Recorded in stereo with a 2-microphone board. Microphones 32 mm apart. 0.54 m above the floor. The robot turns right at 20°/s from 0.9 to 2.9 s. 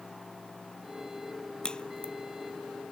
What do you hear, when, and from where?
1.6 s a crack: 25° left (ahead or behind); by 2.1 s 35° left (ahead or behind)